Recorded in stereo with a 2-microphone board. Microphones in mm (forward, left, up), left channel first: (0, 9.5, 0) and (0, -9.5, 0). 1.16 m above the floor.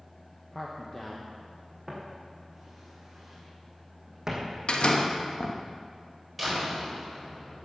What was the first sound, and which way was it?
A man speaking, 15° left (ahead or behind).